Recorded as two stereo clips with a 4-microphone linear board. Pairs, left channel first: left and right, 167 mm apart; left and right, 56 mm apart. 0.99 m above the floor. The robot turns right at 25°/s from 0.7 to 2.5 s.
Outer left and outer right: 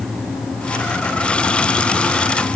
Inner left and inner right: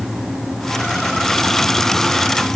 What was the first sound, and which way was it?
Only background noise.